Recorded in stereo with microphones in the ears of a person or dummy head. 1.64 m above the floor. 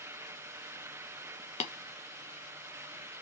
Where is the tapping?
35° left (ahead or behind), 0.5 m.